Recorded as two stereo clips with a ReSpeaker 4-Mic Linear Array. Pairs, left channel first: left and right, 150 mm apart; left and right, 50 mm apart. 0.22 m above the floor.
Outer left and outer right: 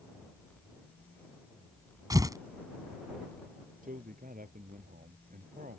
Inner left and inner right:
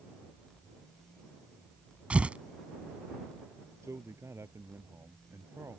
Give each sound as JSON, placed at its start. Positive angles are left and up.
{"t": 2.1, "sound": "tearing paper", "side_deg": -25}
{"t": 3.8, "sound": "a man speaking", "side_deg": -70}